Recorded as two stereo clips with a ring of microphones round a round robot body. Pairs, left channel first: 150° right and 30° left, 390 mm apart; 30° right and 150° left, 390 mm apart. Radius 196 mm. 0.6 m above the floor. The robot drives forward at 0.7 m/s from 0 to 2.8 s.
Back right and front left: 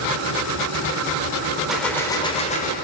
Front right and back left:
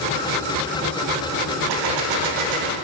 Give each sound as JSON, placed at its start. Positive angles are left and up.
{"t": 1.7, "sound": "a gunshot", "azimuth_deg": 120, "distance_m": 1.4}